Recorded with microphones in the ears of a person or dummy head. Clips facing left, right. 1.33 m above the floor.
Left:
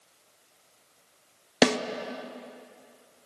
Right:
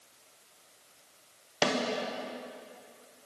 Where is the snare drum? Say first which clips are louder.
Left 7 dB; 70° left (ahead or behind), 0.6 m.